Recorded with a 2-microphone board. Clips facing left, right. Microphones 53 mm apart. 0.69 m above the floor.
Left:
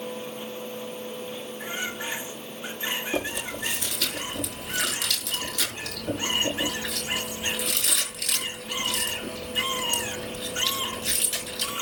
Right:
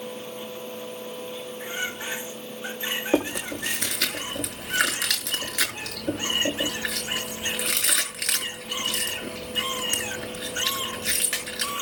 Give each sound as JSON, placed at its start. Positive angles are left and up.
{"t": 3.1, "sound": "chewing", "side_deg": -70, "distance_m": 7.0}